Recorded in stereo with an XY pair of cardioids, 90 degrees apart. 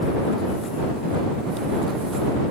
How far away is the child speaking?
No child speaking in this recording.